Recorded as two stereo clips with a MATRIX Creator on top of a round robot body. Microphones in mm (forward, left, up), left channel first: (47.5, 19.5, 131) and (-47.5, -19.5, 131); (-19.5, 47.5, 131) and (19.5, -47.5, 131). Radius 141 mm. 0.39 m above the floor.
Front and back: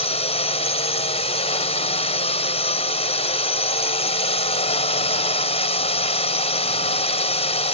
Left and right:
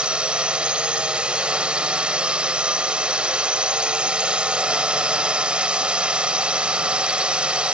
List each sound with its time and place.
0.0 s a drone: 10° left